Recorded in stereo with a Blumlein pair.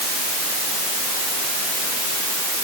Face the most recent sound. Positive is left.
No sound to turn to.